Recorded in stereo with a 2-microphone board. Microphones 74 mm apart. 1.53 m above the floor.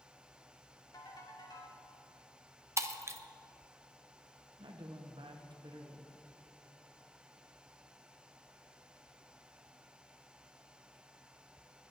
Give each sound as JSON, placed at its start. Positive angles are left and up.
{"t": 0.9, "sound": "a ringtone", "side_deg": 60, "distance_m": 2.0}
{"t": 2.8, "sound": "breaking glass", "side_deg": -40, "distance_m": 0.8}
{"t": 4.6, "sound": "a woman speaking", "side_deg": -85, "distance_m": 1.0}